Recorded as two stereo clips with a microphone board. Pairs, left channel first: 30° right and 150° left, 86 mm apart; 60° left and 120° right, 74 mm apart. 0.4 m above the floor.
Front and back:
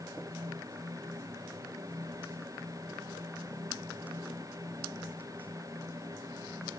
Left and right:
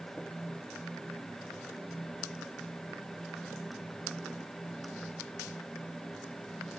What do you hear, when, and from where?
Only background noise.